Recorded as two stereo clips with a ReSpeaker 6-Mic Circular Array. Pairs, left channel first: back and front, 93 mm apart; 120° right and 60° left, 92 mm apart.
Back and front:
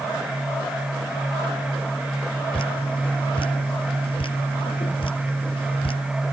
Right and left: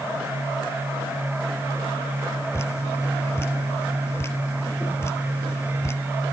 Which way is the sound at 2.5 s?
Straight behind.